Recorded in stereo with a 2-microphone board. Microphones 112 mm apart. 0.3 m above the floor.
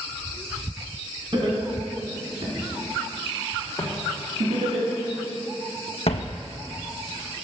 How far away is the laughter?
About 3 m.